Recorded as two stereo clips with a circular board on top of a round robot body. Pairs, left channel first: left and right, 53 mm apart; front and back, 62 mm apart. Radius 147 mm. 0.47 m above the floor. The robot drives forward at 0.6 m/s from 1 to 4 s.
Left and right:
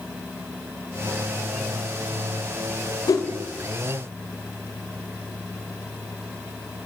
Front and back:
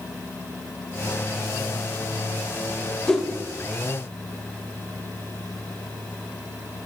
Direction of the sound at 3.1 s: 80° left.